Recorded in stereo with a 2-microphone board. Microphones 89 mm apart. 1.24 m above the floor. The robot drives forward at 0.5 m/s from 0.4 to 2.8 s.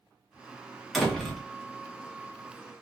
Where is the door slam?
Centre (ahead or behind), 0.7 m.